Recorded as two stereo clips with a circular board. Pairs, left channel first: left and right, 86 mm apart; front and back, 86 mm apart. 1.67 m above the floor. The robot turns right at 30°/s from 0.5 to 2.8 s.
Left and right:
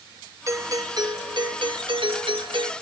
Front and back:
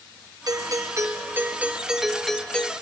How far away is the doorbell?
About 1.1 m.